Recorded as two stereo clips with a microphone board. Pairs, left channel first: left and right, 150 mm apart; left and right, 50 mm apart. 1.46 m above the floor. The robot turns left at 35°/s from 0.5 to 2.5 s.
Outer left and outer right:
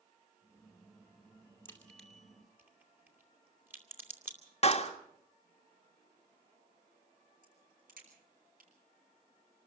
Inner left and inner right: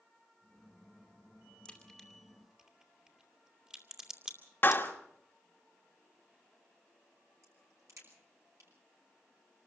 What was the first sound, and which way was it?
A crack, 15° left (ahead or behind).